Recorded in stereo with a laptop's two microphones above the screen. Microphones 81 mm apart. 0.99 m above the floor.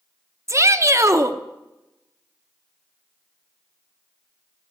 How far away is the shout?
About 0.9 m.